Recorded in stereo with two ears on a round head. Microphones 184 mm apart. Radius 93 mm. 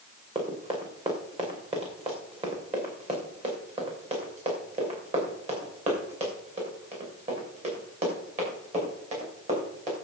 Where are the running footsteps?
30° right (ahead or behind), 5 m; by 9.9 s 35° right (ahead or behind), 10 m.